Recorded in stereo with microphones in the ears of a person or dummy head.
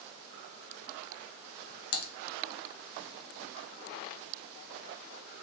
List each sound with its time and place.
1.9 s typing on a keyboard: 60° left (ahead or behind), 0.9 m